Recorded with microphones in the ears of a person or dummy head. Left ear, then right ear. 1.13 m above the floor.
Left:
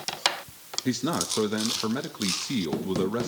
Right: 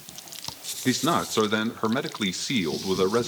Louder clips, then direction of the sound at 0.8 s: Right 5 dB; 25° right (ahead or behind).